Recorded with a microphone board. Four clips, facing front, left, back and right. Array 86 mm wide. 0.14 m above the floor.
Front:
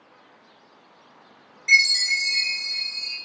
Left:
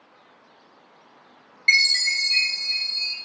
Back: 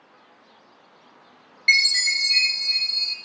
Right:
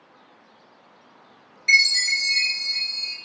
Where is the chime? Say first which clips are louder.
Right 1 dB, front 2 dB; 140° left, 1.6 m.